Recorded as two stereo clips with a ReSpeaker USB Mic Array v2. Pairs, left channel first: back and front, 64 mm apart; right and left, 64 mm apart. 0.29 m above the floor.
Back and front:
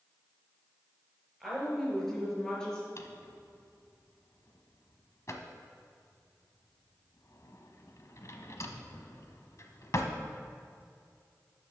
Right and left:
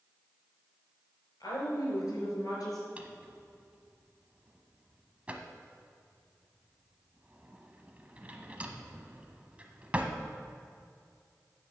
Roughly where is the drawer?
Behind left.